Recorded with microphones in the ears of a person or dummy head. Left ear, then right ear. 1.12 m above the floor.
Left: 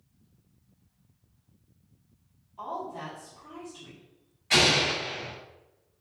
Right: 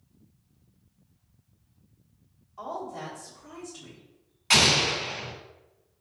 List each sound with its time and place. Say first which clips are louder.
2.6 s a woman speaking: even; 30° right (ahead or behind), 1.3 m
4.5 s an explosion: right 2 dB; 35° right (ahead or behind), 1.7 m